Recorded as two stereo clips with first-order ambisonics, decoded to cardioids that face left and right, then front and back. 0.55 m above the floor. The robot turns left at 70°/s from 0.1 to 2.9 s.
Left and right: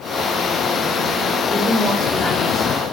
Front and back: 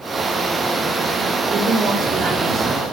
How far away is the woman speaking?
About 1.2 m.